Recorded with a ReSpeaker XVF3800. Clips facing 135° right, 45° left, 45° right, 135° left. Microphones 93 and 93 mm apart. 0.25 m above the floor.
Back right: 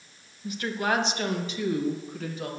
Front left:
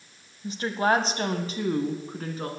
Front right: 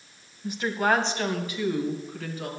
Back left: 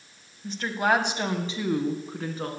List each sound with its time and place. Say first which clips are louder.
0.4 s a woman speaking: front left 4 dB, even; 20° left, 1.2 m; by 2.5 s 90° left, 2.5 m